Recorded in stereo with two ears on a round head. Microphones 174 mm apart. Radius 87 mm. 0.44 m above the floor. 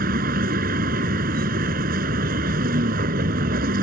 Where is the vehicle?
50° right (ahead or behind).